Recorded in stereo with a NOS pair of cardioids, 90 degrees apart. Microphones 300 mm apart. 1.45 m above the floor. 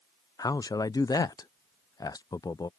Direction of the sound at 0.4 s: 15° left.